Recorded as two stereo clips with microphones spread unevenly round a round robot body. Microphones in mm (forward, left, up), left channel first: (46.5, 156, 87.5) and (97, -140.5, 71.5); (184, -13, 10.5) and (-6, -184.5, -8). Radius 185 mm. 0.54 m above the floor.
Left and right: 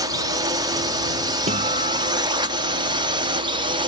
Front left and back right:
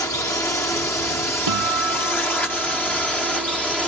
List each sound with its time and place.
0.0 s a drone: 30° right; by 3.9 s 50° right
1.5 s a guitar: 155° right